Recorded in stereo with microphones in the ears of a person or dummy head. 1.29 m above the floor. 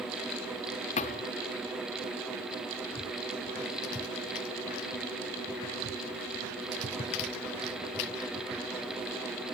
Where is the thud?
40° left (ahead or behind).